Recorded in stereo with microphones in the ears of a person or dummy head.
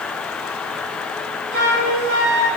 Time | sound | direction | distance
1.5 | a flute | 45° right (ahead or behind) | 1.9 m